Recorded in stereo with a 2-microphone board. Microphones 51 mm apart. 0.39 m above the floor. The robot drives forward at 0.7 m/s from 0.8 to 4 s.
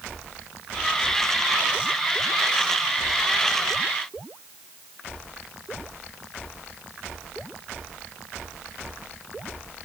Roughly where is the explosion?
No explosion in this recording.